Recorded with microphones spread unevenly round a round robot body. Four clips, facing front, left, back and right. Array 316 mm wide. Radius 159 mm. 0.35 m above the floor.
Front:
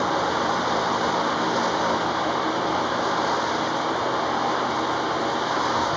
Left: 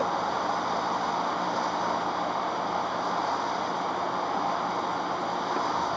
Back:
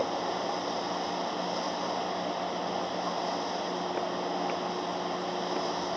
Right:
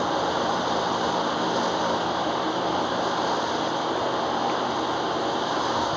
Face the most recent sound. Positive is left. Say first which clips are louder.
# right 3 dB, front 8 dB
turn(degrees=-25)